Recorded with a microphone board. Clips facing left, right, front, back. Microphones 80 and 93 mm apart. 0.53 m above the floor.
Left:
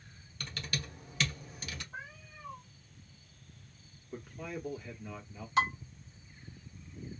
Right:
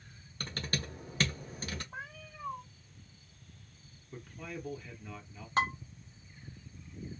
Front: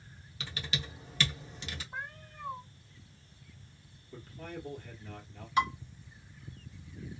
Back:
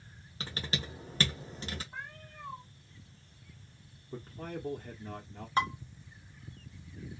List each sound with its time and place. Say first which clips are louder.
0.4 s typing on a keyboard: right 3 dB, back 2 dB; 135° right, 0.8 m
1.9 s a cat meowing: right 1 dB, front 2 dB; 70° right, 1.1 m
4.1 s a man speaking: left 2 dB, back 3 dB; 165° left, 0.9 m
5.6 s dishes clattering: left 1 dB, front 1 dB; 130° right, 1.4 m